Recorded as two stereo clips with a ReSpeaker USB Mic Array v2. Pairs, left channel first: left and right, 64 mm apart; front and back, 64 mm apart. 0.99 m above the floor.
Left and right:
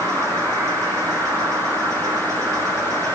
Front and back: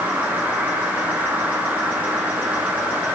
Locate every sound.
0.0 s an insect: 115° right, 4.5 m